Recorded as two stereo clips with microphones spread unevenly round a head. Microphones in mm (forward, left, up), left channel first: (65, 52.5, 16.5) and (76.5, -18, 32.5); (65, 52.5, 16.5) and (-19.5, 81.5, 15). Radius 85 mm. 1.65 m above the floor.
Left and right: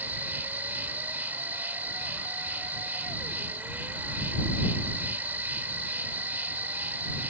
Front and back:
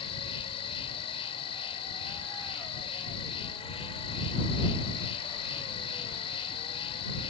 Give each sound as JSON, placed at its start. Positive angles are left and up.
{"t": 0.0, "sound": "an insect", "azimuth_deg": -25}